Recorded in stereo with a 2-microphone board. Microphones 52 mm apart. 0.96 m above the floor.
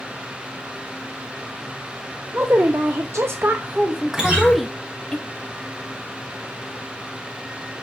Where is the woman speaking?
55° right (ahead or behind), 1.0 m; by 5.2 s 10° left (ahead or behind), 1.5 m.